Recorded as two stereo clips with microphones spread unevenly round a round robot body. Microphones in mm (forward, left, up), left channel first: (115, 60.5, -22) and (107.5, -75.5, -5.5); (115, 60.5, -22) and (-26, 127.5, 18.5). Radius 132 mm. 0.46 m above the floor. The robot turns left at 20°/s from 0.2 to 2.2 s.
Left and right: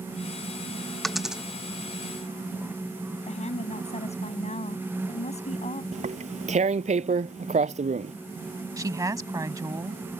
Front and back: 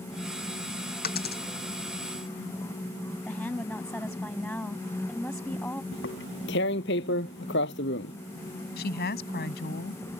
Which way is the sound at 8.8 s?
30° right.